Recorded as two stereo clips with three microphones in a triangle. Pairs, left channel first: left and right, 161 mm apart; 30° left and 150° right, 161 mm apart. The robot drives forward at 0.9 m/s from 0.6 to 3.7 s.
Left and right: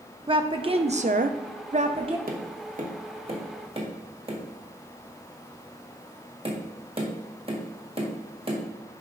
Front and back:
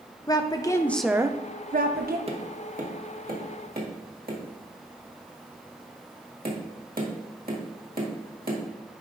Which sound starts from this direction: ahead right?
A woman speaking, at 0.3 s.